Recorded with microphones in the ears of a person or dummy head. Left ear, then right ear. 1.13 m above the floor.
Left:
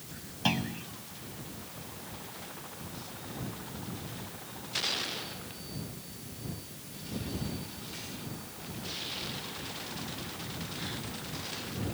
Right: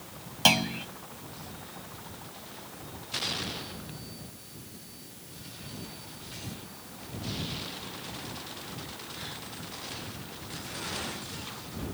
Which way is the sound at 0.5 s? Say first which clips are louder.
Right 8 dB; 40° right (ahead or behind).